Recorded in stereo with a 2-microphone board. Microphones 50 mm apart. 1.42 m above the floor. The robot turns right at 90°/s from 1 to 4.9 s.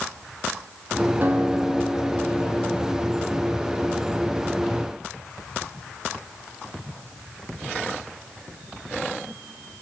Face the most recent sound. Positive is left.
turn(degrees=-75)